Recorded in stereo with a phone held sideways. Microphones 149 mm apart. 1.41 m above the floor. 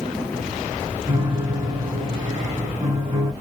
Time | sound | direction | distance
1.1 | a piano | 30° right (ahead or behind) | 2.5 m